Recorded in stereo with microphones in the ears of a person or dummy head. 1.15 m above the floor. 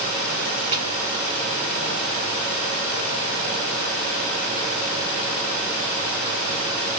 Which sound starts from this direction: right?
A snare drum, at 0.7 s.